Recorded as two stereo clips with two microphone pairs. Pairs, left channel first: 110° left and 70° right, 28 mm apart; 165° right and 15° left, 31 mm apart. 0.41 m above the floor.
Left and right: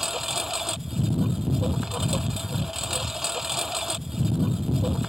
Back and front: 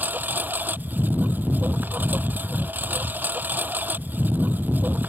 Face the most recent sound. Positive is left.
turn(degrees=10)